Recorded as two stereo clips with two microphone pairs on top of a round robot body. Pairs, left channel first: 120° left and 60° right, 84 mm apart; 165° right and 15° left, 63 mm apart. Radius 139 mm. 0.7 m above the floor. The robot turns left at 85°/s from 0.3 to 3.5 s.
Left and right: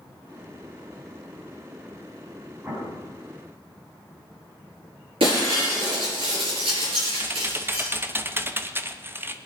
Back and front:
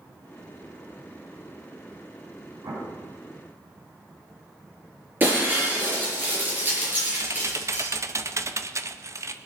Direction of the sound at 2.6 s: 10° left.